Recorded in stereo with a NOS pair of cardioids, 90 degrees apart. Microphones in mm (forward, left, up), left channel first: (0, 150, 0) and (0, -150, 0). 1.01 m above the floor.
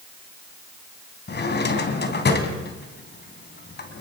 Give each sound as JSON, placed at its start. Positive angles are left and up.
{"t": 1.3, "sound": "a drawer", "azimuth_deg": 35, "distance_m": 3.5}